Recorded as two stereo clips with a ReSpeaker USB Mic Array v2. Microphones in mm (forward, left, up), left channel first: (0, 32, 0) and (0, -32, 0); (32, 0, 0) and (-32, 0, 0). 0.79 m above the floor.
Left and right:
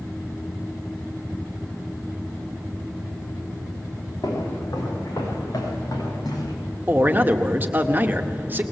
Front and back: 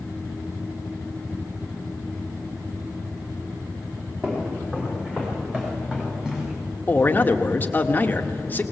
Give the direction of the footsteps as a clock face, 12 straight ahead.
8 o'clock.